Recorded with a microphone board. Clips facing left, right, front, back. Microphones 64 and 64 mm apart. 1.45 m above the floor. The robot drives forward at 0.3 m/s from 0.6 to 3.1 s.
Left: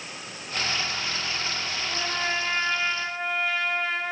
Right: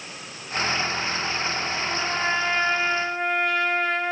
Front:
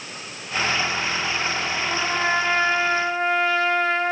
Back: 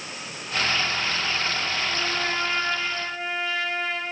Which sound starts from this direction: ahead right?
A trumpet, at 1.9 s.